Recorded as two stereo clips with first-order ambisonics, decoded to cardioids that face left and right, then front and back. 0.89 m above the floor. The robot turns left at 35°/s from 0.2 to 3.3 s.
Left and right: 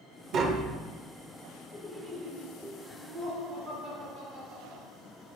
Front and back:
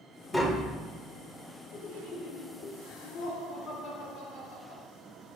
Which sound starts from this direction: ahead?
Laughter, at 1.7 s.